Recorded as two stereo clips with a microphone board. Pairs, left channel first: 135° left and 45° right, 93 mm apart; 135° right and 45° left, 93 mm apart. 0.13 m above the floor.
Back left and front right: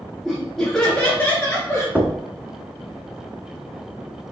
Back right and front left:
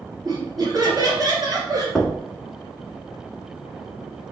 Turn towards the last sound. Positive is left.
turn(degrees=-50)